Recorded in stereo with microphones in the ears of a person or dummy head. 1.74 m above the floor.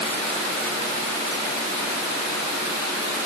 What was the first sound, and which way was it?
Only background noise.